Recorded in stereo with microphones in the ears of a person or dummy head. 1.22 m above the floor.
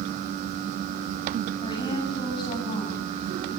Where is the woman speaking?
30° left (ahead or behind), 10 m.